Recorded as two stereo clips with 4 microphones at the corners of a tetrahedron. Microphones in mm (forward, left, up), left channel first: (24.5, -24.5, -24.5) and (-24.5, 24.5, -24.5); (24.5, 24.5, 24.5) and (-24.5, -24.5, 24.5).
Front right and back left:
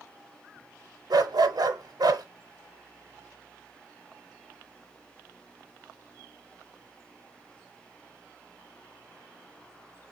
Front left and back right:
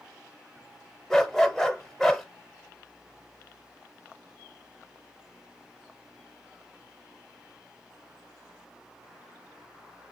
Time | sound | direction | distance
1.1 | a dog barking | 130° left | 0.6 m